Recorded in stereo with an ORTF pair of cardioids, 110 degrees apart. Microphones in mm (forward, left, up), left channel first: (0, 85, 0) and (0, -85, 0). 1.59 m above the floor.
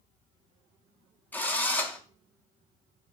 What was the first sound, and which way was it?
A drill, 10° left.